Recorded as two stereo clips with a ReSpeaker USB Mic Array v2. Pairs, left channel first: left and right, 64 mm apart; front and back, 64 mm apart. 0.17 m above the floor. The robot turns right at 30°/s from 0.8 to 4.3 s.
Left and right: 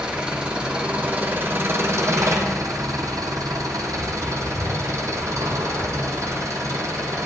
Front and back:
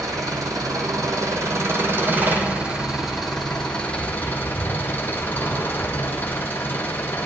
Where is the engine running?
165° right, 1.9 m; by 7.3 s 60° right, 1.9 m.